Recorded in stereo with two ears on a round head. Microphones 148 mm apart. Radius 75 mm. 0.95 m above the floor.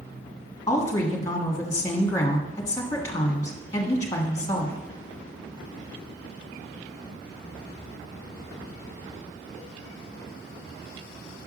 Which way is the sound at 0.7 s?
20° left (ahead or behind).